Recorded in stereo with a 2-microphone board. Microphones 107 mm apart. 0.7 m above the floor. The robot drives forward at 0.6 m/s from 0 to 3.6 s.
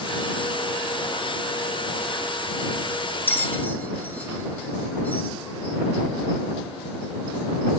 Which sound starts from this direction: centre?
A bell, at 3.3 s.